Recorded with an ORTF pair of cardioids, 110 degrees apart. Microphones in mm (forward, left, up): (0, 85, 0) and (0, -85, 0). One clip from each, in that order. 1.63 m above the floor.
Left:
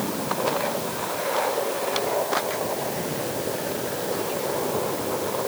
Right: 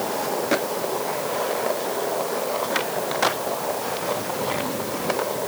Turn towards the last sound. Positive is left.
No sound to turn to.